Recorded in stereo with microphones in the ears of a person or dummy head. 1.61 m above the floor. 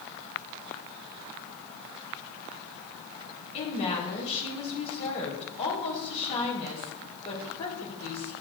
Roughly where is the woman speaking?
Left.